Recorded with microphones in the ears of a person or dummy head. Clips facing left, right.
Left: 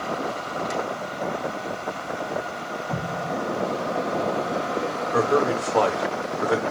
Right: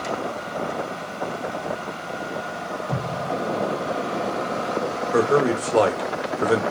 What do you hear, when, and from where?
2.9 s an explosion: 40° right (ahead or behind), 1.4 m
5.1 s a man speaking: 35° right (ahead or behind), 1.1 m